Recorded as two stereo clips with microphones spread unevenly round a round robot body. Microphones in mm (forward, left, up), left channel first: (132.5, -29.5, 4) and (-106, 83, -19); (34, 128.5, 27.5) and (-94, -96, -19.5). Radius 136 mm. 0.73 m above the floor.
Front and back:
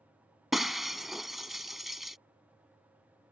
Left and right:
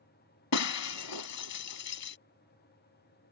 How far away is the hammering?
I don't hear hammering.